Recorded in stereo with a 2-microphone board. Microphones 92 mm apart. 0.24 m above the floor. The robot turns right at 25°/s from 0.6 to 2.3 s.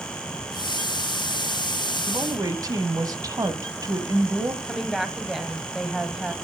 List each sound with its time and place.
2.1 s a woman speaking: 40° right (ahead or behind), 1.5 m
4.6 s a woman speaking: 5° right (ahead or behind), 1.5 m